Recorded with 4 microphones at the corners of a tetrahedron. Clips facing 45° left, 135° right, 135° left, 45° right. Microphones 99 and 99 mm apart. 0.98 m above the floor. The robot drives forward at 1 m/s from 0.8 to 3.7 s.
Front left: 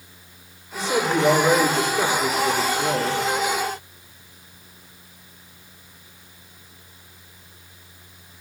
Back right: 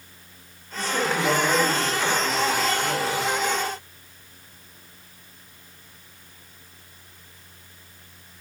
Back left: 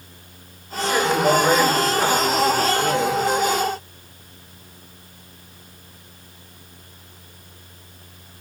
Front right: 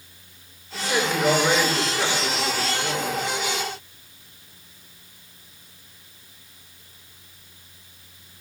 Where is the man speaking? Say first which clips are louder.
Front left 4 dB, back left 4 dB; 40° left, 3.5 m; by 3.2 s 80° left, 2.5 m.